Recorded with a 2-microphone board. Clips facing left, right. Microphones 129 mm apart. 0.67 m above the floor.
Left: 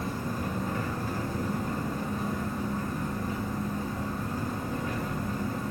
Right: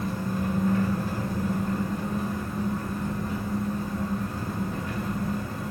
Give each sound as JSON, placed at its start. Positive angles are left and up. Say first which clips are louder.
{"t": 0.0, "sound": "an engine running", "louder": "right 3 dB", "side_deg": 20, "distance_m": 1.4}